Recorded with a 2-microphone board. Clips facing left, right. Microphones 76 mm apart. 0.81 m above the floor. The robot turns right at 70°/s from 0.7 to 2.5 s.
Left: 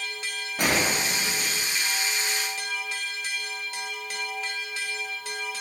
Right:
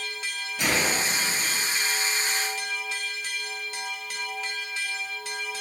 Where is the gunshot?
130° left, 0.8 m; by 1.6 s 165° right, 0.8 m.